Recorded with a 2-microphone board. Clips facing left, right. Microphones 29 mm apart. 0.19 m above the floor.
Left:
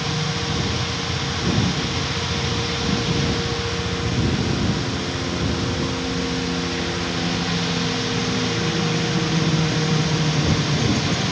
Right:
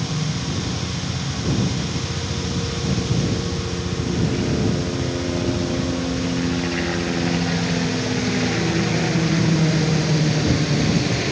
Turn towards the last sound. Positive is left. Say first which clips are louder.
# left 2 dB
turn(degrees=-20)  # may be behind; listen again after turning